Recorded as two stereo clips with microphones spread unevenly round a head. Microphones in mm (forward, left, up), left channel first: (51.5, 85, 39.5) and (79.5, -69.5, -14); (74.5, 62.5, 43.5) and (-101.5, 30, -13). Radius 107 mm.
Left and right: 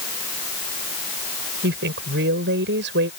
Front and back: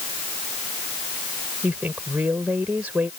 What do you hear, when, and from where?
1.6 s a woman speaking: 85° right